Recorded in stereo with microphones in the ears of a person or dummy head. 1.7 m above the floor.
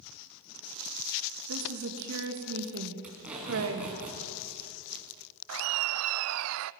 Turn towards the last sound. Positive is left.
turn(degrees=-75)  # may be behind; listen again after turning